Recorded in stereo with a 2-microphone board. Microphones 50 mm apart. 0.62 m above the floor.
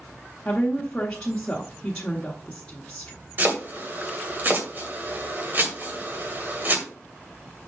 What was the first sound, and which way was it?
A woman speaking, 20° left (ahead or behind).